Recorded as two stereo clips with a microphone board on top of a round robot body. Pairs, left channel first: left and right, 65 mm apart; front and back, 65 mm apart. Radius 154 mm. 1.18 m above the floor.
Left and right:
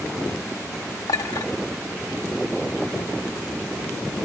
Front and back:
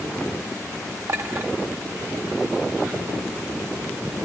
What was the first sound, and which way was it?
A clink, 130° left.